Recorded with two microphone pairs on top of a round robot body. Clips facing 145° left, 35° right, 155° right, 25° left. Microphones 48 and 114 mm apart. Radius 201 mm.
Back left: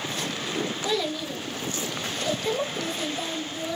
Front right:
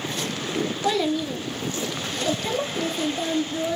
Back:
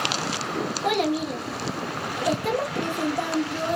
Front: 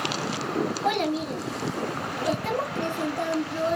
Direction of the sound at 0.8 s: 85° right.